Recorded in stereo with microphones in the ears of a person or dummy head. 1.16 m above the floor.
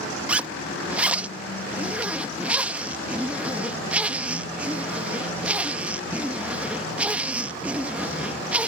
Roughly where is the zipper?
Centre.